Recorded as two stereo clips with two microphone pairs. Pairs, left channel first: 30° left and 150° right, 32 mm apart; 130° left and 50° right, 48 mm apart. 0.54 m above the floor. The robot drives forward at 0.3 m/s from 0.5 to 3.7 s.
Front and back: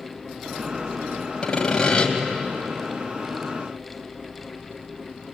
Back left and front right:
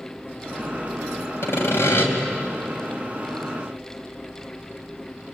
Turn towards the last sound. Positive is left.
turn(degrees=110)